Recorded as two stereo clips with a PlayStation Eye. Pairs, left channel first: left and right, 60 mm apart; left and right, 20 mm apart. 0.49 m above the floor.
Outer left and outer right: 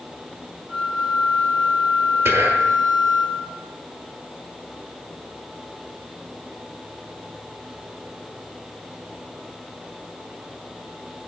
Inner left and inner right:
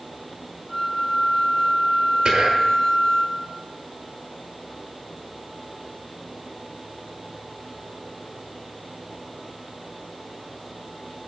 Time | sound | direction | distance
0.7 | a flute | 10° right (ahead or behind) | 2.0 m
2.2 | whispering | 45° right (ahead or behind) | 1.0 m